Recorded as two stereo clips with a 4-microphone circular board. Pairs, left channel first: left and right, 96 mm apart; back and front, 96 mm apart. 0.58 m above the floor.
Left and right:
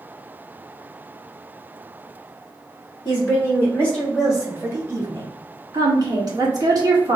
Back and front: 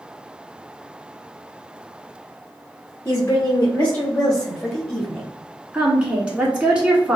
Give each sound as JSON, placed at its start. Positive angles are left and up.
{"t": 3.0, "sound": "a woman speaking", "azimuth_deg": 125, "distance_m": 1.5}
{"t": 5.7, "sound": "a woman speaking", "azimuth_deg": -70, "distance_m": 1.6}